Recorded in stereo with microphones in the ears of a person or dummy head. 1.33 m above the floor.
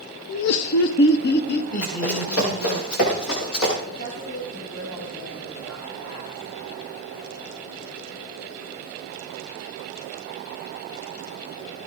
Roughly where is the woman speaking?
Left.